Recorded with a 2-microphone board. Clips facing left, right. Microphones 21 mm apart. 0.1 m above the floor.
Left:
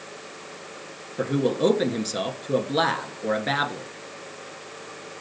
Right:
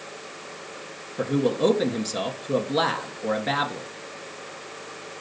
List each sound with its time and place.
1.2 s a man speaking: 15° left (ahead or behind), 1.1 m